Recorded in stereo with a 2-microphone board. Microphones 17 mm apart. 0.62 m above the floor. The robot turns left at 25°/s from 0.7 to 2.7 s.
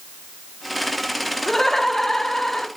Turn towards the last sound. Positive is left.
turn(degrees=100)